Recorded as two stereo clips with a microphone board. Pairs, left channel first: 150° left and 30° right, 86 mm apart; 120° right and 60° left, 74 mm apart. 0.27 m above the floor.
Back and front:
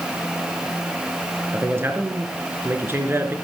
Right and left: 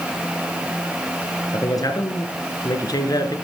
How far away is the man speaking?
About 4.5 m.